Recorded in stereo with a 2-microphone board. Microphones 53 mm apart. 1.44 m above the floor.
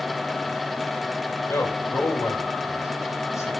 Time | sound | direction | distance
1.5 | a man speaking | 75° left (ahead or behind) | 6.5 m